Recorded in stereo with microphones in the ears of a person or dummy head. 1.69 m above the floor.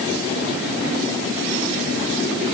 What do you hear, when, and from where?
Only background noise.